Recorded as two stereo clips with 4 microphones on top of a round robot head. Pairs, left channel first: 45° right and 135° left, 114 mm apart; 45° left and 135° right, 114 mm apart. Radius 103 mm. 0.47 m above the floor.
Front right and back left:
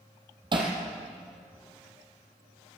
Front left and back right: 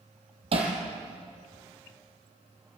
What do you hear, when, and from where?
0.5 s hammering: 175° right, 4.5 m